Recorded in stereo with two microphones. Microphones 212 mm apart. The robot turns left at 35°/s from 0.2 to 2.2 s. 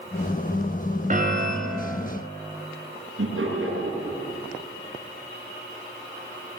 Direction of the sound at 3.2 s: 80° right.